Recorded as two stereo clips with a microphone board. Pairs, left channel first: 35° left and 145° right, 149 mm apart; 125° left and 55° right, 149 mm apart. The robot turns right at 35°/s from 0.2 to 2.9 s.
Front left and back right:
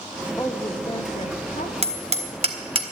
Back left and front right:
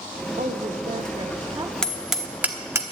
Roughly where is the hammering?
Behind right.